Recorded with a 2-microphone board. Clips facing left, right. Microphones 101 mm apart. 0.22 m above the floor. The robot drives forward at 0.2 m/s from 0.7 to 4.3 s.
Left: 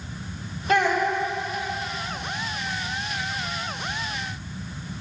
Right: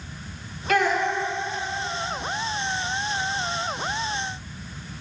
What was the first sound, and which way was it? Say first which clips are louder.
A child speaking: left 1 dB; 25° left (ahead or behind).